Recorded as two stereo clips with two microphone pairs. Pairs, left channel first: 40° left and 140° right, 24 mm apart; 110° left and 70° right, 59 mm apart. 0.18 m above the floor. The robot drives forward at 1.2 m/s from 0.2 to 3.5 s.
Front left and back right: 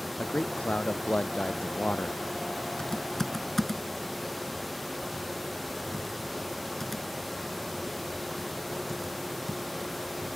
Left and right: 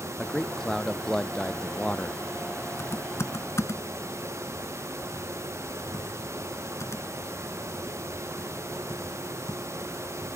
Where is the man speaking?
25° left; by 2.2 s 35° left.